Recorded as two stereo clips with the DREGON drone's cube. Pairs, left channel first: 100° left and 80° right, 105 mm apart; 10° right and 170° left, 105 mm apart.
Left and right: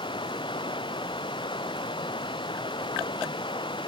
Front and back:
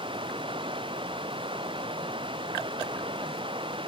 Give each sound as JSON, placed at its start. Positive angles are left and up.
{"t": 0.0, "sound": "running water", "azimuth_deg": 135}